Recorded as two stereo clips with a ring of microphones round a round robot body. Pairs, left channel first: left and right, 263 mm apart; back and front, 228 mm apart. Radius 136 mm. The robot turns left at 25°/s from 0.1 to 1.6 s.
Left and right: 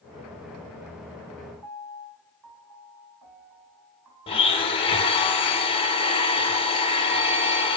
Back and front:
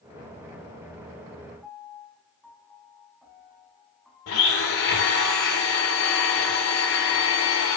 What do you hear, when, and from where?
1.6 s a piano: 90° right, 4.5 m
4.3 s a blender: 160° left, 3 m